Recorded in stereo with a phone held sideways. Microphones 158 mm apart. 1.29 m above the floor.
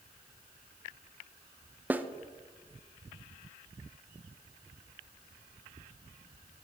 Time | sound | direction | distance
1.9 | a snare drum | 10° right (ahead or behind) | 0.5 m